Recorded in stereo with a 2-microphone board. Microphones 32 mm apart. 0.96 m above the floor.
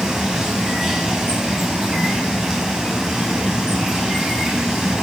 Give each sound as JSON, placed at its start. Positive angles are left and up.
{"t": 0.0, "sound": "running water", "side_deg": -15, "distance_m": 4.0}